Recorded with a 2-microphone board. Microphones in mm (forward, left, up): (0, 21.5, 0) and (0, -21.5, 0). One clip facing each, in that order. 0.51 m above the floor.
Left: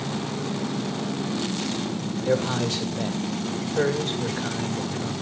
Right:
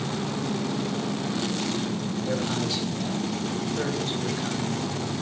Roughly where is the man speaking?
Left.